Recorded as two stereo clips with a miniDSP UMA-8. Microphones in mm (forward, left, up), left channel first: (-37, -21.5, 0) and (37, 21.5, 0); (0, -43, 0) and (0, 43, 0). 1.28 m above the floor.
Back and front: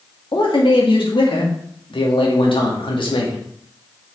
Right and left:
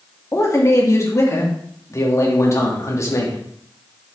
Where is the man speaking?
145° right, 2.5 m.